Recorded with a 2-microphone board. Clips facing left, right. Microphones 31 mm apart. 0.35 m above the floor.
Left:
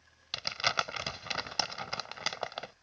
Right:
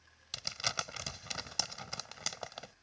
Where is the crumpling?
35° left (ahead or behind).